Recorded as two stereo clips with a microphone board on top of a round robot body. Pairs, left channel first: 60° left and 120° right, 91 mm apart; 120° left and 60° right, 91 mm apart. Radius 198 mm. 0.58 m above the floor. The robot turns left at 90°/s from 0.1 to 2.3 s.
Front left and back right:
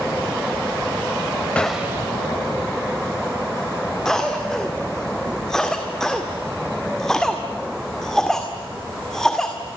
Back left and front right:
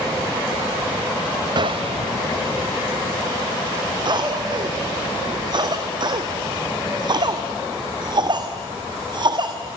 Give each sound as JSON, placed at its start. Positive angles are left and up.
{"t": 1.6, "sound": "a gunshot", "azimuth_deg": -20, "distance_m": 0.5}
{"t": 4.0, "sound": "a cough", "azimuth_deg": -25, "distance_m": 2.0}